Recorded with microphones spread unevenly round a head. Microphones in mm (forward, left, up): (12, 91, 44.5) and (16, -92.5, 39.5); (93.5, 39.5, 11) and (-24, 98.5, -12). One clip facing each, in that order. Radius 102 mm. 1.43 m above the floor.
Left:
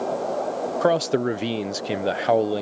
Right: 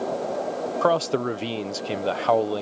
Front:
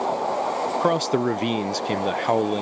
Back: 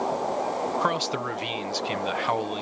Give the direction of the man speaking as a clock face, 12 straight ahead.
11 o'clock.